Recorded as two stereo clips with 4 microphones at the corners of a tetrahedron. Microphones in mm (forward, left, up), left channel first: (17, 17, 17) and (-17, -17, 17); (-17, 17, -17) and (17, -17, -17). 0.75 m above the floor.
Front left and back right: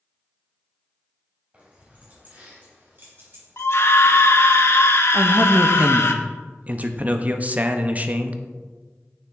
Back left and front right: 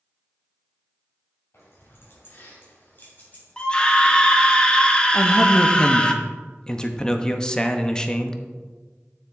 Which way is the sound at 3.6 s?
65° left.